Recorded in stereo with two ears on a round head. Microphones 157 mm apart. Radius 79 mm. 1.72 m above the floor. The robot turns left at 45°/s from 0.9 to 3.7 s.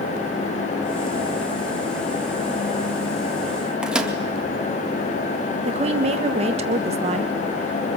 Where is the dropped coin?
I don't hear a dropped coin.